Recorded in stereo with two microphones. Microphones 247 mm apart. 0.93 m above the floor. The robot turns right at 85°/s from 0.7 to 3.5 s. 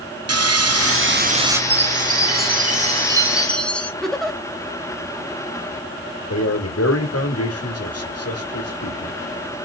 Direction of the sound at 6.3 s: 75° left (ahead or behind).